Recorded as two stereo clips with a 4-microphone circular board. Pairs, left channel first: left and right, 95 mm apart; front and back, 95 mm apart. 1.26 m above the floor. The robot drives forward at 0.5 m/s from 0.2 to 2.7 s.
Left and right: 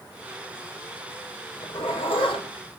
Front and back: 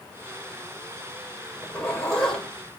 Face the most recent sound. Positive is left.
turn(degrees=90)